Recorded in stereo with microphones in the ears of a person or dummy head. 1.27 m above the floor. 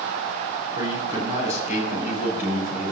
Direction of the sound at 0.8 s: 25° right (ahead or behind).